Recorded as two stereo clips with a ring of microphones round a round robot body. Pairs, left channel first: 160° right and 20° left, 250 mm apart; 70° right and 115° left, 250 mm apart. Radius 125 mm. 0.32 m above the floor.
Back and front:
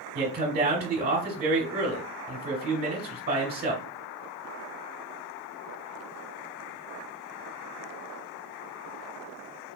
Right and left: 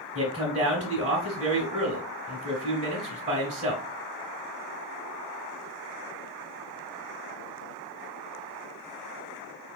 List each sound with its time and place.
0.1 s a man speaking: 60° left, 1.2 m